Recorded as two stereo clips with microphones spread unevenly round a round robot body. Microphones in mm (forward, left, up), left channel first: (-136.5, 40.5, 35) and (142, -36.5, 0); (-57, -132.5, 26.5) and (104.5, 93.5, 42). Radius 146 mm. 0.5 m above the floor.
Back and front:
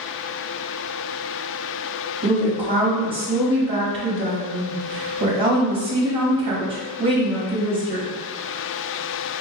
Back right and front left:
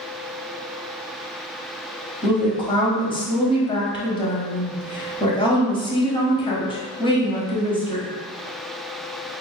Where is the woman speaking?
65° right, 0.9 m.